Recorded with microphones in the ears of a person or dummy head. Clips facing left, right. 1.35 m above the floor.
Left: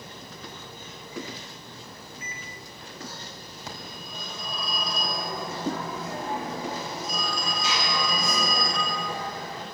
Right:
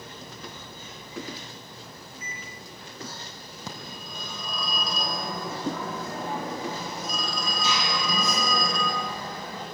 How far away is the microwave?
About 3.5 m.